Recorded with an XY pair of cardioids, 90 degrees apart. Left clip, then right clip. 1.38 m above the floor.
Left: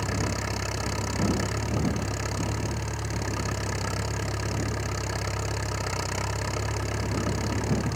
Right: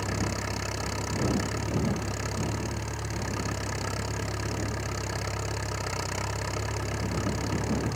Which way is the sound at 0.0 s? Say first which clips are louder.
Left 2 dB; 10° left.